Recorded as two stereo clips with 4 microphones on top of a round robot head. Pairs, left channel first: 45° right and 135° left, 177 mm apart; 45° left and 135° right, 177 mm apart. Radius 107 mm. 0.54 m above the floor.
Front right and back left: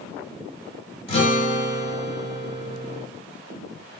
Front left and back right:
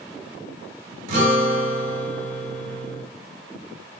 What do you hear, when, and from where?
1.1 s a guitar: 95° right, 2.5 m